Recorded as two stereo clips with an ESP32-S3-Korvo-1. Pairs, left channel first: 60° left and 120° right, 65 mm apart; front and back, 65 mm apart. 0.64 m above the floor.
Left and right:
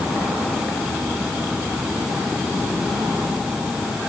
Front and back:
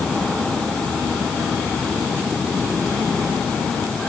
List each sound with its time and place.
Only background noise.